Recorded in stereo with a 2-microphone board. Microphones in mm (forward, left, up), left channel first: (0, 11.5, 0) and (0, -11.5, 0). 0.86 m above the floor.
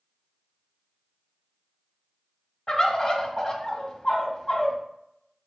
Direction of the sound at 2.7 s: 25° left (ahead or behind).